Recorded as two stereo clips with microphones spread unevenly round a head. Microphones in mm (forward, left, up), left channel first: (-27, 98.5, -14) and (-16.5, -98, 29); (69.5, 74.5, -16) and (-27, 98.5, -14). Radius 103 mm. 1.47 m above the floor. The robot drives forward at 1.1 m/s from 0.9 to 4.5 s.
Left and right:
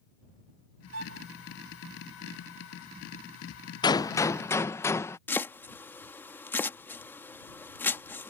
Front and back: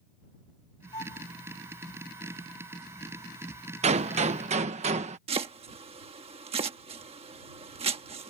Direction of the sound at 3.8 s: 165° left.